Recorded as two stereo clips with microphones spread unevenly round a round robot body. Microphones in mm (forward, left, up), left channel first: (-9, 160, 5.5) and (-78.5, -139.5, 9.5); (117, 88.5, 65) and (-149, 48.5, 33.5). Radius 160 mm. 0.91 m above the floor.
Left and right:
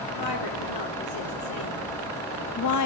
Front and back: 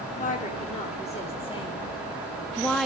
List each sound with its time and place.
0.2 s a woman speaking: 75° left, 3 m; by 2.9 s 100° left, 1.3 m